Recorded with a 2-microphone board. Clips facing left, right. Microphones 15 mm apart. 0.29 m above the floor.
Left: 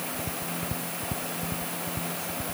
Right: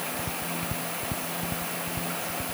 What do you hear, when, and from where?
Only background noise.